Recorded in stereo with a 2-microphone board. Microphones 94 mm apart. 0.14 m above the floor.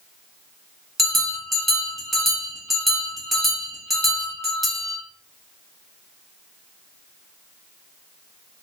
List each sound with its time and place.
1.0 s a bell: centre (ahead or behind), 0.9 m